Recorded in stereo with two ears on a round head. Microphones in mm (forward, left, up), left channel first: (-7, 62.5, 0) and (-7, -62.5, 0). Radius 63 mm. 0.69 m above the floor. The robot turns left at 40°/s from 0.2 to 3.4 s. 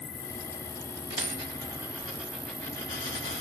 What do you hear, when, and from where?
0.0 s an insect: 65° left, 1.0 m; by 3.4 s 65° right, 1.0 m
1.1 s a dropped coin: 50° right (ahead or behind), 1.6 m; by 3.4 s 40° left (ahead or behind), 1.6 m